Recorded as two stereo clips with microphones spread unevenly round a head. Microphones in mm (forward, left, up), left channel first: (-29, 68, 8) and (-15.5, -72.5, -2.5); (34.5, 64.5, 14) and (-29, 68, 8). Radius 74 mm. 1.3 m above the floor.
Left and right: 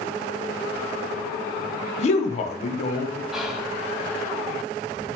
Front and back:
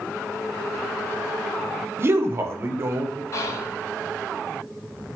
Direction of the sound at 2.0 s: 135° left.